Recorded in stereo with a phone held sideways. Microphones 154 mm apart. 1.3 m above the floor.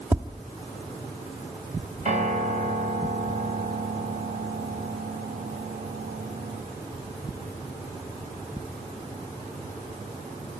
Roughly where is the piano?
Right.